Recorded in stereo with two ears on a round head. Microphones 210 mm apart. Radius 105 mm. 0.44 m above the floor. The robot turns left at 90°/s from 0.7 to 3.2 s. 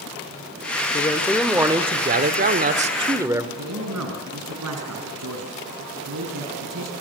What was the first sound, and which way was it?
A man speaking, 45° left.